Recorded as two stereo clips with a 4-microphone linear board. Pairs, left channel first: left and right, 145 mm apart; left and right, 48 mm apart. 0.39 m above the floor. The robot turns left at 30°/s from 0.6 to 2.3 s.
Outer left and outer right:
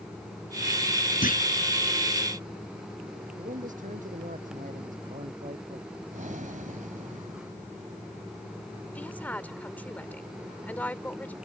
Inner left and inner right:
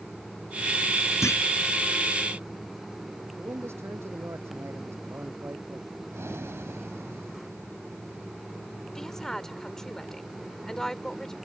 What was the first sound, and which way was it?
A clunk, 75° left (ahead or behind).